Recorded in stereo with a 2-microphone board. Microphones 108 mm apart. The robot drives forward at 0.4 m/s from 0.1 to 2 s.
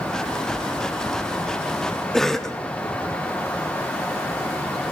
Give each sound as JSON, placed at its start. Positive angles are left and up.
{"t": 2.1, "sound": "a cough", "side_deg": 5, "distance_m": 0.5}